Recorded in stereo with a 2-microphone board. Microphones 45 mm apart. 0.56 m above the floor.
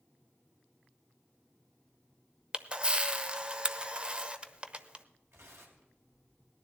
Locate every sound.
2.5 s a camera shutter: 25° right (ahead or behind), 0.7 m
5.3 s tearing paper: 70° right (ahead or behind), 3 m